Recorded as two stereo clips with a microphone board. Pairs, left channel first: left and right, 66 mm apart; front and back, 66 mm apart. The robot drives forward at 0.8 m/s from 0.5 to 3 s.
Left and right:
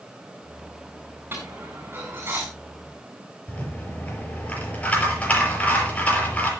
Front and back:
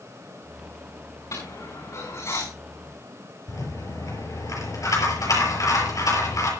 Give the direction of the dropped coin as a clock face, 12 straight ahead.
1 o'clock.